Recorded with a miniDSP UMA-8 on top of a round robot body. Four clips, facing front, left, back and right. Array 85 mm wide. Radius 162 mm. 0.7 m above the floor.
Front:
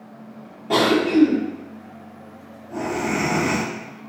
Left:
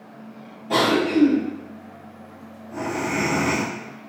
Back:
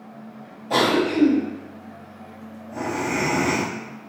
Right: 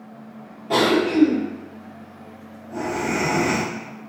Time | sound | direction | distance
0.7 | a cough | 10° right | 1.6 m